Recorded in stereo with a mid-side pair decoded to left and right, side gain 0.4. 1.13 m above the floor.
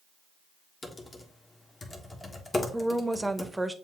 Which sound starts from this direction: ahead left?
Typing on a keyboard, at 0.8 s.